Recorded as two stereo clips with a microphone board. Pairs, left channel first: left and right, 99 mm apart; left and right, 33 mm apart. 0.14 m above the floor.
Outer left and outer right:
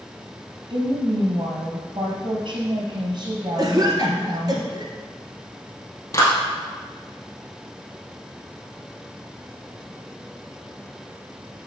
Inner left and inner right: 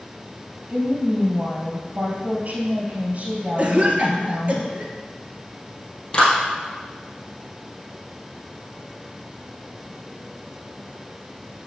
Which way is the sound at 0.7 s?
55° right (ahead or behind).